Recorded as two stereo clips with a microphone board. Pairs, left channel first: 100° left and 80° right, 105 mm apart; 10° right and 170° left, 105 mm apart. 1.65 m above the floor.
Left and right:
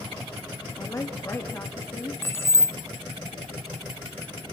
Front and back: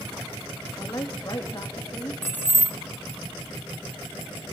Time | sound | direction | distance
0.8 | a woman speaking | 40° left | 2.5 m
2.2 | keys jangling | 45° left | 0.6 m